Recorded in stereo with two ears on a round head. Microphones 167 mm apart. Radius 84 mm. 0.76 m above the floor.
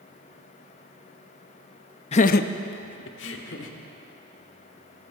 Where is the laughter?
35° left (ahead or behind), 0.5 m; by 3.7 s 75° left (ahead or behind), 2 m.